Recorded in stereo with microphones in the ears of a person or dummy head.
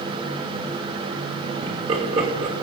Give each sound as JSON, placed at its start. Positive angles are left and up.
{"t": 1.6, "sound": "laughter", "side_deg": -30, "distance_m": 3.0}